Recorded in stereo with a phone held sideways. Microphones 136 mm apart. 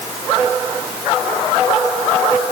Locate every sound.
Only background noise.